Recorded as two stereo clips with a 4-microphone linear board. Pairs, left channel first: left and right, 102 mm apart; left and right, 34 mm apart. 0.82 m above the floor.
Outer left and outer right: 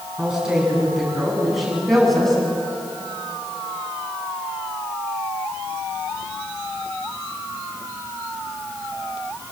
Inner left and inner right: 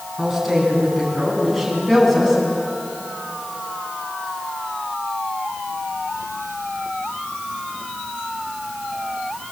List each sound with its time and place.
0.2 s a woman speaking: 10° right (ahead or behind), 8.5 m; by 2.4 s centre (ahead or behind), 7.5 m